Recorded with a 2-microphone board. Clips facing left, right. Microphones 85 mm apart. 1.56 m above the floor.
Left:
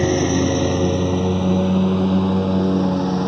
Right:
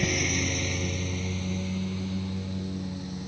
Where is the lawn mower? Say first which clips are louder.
Left 12 dB; 45° left (ahead or behind); by 3.3 s 70° left (ahead or behind).